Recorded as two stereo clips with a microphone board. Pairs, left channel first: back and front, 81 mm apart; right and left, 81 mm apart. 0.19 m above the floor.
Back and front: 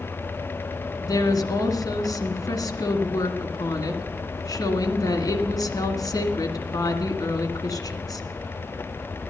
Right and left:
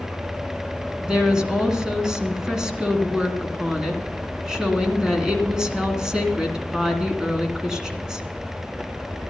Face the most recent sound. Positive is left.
turn(degrees=170)